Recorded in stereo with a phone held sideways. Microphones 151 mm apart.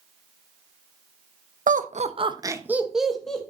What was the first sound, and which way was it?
Laughter, 60° right (ahead or behind).